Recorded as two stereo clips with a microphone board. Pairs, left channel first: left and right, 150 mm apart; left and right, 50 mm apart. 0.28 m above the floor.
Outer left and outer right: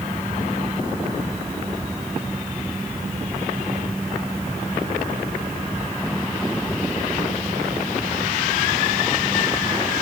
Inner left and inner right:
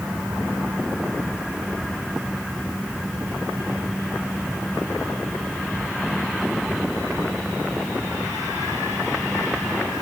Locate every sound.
Only background noise.